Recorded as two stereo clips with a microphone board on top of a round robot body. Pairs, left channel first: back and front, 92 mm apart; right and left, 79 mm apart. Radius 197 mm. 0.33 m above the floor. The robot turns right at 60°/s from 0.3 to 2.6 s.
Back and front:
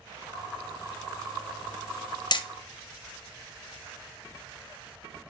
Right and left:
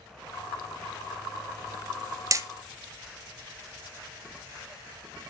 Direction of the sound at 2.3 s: 140° left.